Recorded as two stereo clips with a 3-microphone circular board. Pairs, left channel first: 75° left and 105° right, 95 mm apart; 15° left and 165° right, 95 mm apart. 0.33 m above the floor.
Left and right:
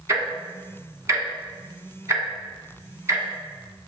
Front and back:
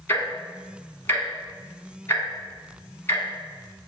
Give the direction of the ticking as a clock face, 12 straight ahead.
2 o'clock.